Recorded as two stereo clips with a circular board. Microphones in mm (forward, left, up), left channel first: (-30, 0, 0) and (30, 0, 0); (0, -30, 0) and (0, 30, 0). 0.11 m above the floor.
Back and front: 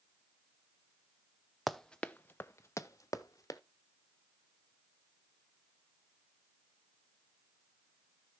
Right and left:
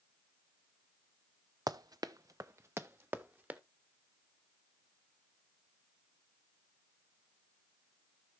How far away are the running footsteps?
About 0.6 m.